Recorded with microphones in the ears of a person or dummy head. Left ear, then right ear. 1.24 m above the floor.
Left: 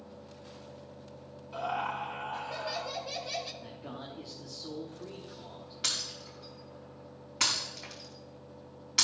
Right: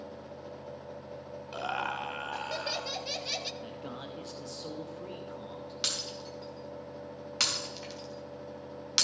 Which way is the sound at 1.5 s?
45° right (ahead or behind).